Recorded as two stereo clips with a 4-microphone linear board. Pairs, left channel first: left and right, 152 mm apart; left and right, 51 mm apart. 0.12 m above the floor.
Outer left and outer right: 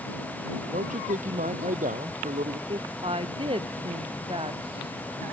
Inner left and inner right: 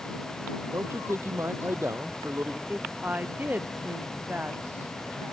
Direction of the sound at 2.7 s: 35° right (ahead or behind).